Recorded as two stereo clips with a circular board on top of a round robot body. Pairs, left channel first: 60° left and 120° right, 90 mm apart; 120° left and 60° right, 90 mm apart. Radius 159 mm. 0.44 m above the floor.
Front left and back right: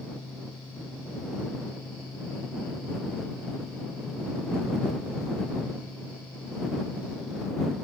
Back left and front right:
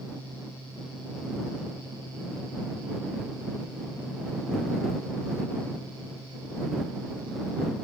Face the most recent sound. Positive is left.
No sound to turn to.